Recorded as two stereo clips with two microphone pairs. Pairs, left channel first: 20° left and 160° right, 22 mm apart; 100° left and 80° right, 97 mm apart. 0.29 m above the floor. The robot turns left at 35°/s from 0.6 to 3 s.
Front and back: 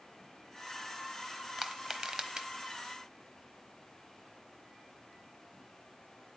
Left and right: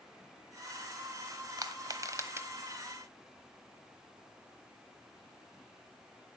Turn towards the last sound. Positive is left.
turn(degrees=-145)